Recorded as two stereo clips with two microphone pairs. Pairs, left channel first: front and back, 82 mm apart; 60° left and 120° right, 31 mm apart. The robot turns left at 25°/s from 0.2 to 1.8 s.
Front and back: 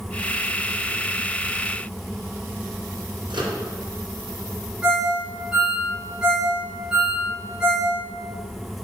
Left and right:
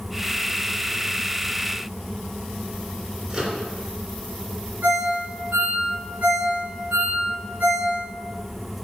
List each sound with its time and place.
3.3 s a microwave: 175° left, 3 m
4.8 s a ringtone: 100° right, 3.5 m